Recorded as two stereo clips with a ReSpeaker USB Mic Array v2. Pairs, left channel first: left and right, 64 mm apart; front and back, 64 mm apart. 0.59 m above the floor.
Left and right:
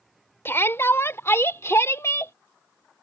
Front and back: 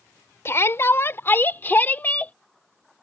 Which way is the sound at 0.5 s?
40° left.